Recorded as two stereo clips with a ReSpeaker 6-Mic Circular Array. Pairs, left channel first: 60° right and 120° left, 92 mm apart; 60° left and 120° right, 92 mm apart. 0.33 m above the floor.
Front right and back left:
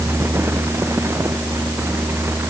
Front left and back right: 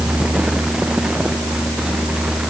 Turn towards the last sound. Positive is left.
No sound to turn to.